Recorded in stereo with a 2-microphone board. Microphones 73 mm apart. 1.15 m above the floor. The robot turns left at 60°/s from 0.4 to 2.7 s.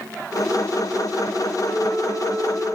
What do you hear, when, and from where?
1.6 s a flute: 90° left, 7.5 m; by 2.8 s 25° left, 7.5 m